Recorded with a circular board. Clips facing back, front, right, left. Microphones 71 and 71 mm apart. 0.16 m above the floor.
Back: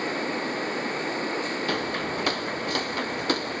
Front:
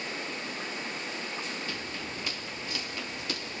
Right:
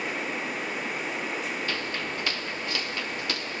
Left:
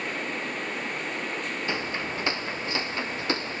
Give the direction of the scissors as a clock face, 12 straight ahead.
No scissors in this recording.